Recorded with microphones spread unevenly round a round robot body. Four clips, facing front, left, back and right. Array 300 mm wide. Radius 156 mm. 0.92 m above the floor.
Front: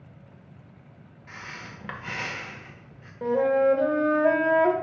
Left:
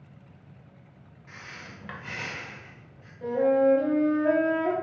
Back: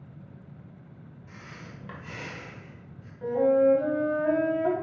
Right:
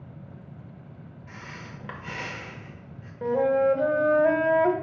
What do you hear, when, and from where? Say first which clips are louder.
1.3 s breathing: right 2 dB, front 5 dB; 35° right, 0.9 m
3.2 s a flute: even, even; 35° right, 1.0 m